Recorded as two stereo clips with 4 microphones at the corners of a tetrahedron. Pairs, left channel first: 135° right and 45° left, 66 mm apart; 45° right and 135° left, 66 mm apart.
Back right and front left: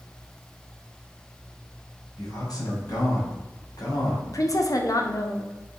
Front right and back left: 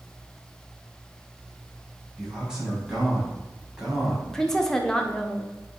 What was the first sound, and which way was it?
A man speaking, 145° right.